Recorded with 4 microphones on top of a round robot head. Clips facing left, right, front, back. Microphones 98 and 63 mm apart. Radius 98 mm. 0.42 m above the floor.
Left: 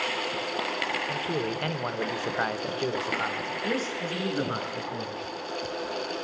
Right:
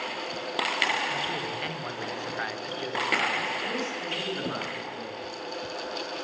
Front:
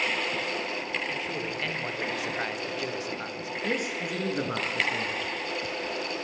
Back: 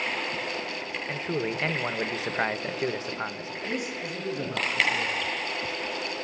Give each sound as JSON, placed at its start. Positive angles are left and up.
{"t": 1.1, "sound": "a man speaking", "azimuth_deg": 135, "distance_m": 1.4}
{"t": 3.6, "sound": "a man speaking", "azimuth_deg": 35, "distance_m": 6.5}